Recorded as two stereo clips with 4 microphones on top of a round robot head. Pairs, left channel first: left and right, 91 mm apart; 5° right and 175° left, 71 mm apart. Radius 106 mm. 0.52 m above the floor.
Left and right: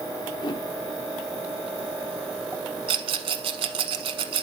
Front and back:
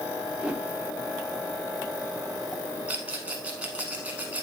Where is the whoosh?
105° left, 1.6 m.